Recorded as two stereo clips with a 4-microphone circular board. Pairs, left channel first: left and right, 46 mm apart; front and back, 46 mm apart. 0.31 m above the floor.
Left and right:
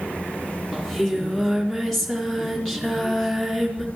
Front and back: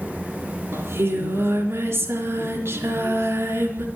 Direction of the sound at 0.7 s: Straight behind.